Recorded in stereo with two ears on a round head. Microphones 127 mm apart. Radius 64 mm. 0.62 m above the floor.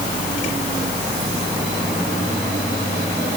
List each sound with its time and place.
Only background noise.